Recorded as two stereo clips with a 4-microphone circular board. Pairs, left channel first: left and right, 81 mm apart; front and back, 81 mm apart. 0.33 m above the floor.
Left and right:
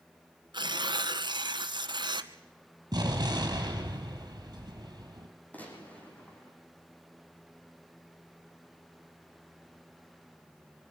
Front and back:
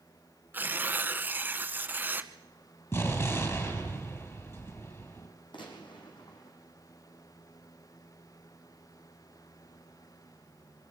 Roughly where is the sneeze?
I don't hear a sneeze.